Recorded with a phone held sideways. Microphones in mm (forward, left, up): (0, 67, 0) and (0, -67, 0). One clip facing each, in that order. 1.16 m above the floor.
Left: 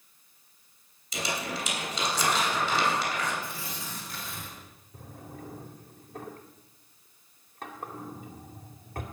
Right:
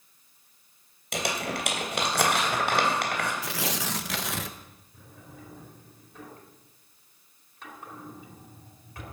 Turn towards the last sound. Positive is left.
turn(degrees=50)  # may be behind; listen again after turning